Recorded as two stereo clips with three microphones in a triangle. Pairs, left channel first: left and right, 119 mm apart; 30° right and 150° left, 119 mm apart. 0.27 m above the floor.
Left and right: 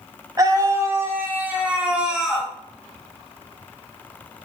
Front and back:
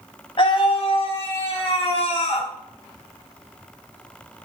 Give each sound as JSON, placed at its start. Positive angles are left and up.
{"t": 0.4, "sound": "a scream", "azimuth_deg": -40, "distance_m": 1.9}